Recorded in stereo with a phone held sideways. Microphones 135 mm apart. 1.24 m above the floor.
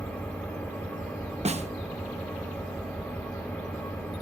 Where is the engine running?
10° left (ahead or behind), 4 m.